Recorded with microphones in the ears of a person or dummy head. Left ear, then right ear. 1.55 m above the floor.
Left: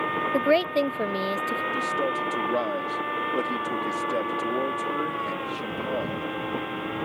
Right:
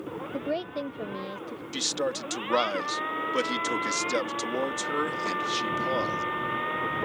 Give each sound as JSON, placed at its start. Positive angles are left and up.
{"t": 0.3, "sound": "a woman speaking", "side_deg": 60}
{"t": 1.7, "sound": "a man speaking", "side_deg": -40}